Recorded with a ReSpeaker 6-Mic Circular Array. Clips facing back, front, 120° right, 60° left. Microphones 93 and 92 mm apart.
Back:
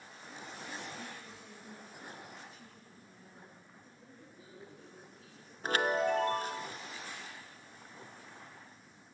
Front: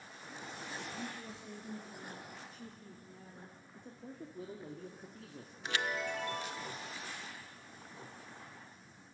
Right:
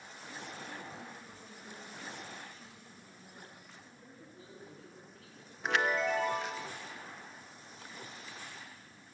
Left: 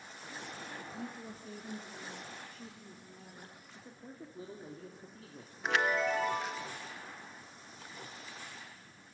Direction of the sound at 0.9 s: 70° left.